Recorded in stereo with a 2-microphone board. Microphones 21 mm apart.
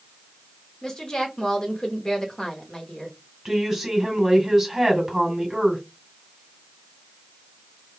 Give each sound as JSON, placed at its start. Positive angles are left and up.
{"t": 0.8, "sound": "a woman speaking", "side_deg": 30, "distance_m": 1.1}
{"t": 3.5, "sound": "a woman speaking", "side_deg": -15, "distance_m": 1.9}